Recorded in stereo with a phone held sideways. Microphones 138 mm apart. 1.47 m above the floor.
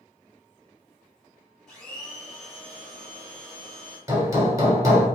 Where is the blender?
5° left (ahead or behind), 2.5 m.